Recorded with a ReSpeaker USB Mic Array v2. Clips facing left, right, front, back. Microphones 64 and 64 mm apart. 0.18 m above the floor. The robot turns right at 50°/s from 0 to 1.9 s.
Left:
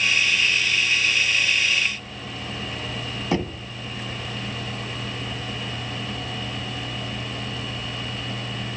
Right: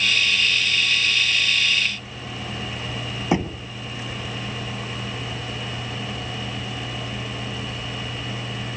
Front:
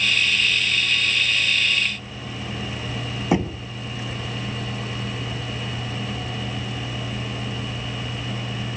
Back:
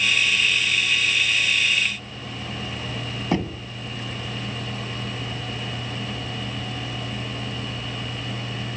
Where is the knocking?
55° right, 1.0 m.